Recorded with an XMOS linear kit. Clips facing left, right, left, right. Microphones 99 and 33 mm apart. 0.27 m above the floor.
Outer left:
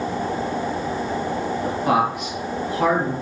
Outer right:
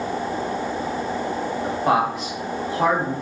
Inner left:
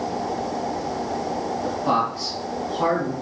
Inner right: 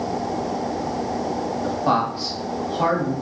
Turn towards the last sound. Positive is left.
turn(degrees=-35)  # may be behind; listen again after turning